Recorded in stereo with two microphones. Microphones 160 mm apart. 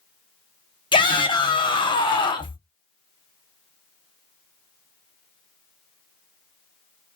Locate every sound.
0.9 s a shout: 30° left (ahead or behind), 0.9 m